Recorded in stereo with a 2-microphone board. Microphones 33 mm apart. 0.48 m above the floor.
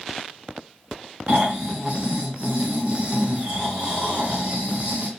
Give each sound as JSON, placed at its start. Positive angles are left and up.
{"t": 1.3, "sound": "snoring", "side_deg": -35, "distance_m": 1.6}